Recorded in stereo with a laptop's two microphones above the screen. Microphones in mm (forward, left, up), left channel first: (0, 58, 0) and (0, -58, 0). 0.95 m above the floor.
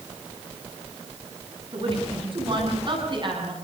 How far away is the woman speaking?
About 8.5 m.